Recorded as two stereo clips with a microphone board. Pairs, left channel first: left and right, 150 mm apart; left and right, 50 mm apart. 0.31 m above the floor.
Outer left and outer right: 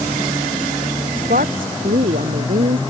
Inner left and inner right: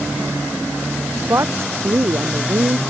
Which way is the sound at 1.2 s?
65° right (ahead or behind).